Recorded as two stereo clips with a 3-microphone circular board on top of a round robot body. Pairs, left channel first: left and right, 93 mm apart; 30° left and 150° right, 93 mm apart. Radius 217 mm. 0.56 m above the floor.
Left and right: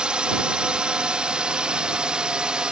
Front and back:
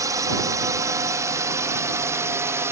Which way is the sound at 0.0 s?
165° right.